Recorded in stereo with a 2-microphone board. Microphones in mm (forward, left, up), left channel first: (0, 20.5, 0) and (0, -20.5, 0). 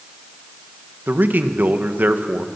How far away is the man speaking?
About 1.4 m.